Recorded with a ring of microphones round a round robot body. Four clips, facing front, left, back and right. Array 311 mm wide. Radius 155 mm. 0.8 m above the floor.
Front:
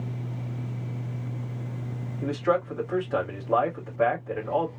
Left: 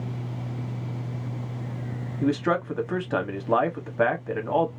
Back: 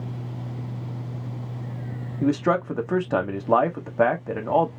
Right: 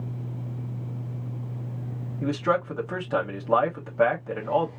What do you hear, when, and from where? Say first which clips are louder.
2.2 s a man speaking: left 1 dB, back 4 dB; 165° left, 1.2 m